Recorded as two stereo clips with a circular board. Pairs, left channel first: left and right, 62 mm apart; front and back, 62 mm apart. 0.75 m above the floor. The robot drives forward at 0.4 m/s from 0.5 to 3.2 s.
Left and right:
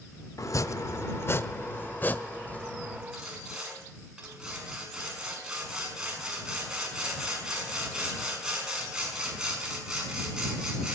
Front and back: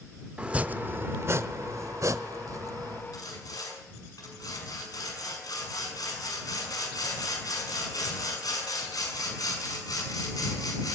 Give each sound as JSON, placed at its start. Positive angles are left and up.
{"t": 0.4, "sound": "chopping", "azimuth_deg": 110, "distance_m": 0.6}
{"t": 3.1, "sound": "sawing", "azimuth_deg": -10, "distance_m": 6.0}